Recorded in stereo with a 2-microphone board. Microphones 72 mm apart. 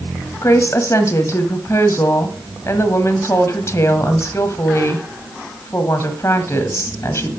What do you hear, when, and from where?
0.4 s a woman speaking: 45° left (ahead or behind), 1.5 m